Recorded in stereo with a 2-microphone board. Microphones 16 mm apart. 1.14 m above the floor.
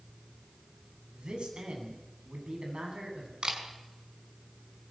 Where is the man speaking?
85° right, 9.5 m.